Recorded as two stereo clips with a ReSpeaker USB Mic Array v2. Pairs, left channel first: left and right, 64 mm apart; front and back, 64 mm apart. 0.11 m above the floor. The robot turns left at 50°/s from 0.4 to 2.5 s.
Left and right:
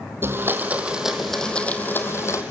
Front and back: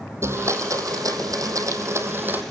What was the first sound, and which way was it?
A blender, 140° right.